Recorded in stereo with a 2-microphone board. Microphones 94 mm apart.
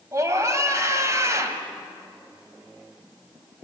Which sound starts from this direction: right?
A scream, at 0.1 s.